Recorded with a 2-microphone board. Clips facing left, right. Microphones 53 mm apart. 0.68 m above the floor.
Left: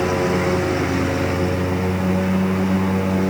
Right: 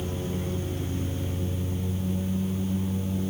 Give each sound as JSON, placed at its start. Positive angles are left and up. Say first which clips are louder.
{"t": 0.0, "sound": "a lawn mower", "louder": "left 14 dB", "side_deg": 75}